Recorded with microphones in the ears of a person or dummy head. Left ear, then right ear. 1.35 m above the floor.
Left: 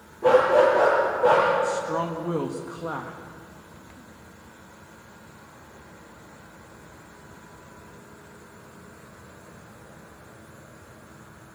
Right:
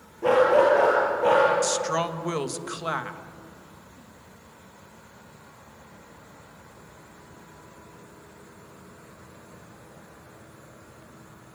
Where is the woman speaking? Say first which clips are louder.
Right 1 dB; 75° right (ahead or behind), 1.4 m.